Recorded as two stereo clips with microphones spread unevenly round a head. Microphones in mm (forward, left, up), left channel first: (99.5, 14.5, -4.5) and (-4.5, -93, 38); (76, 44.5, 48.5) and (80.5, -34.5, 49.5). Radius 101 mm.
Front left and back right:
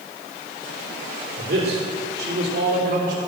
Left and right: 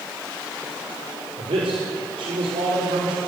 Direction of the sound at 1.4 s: 115° right.